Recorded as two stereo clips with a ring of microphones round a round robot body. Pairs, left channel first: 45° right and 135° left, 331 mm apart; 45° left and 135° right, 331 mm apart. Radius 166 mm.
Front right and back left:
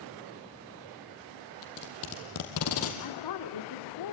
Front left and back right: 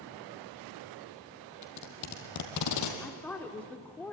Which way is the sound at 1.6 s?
5° left.